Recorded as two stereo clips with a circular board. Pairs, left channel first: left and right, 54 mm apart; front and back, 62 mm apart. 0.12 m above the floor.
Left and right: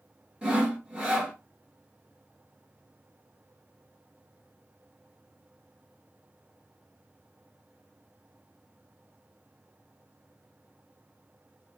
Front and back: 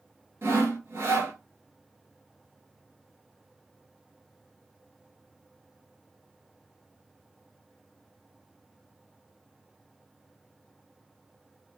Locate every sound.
0.4 s sawing: 155° right, 1.8 m